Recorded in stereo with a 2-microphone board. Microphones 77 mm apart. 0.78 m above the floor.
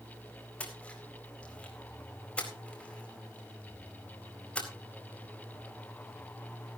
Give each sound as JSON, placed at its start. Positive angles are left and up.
{"t": 0.6, "sound": "a splash", "side_deg": 15, "distance_m": 4.0}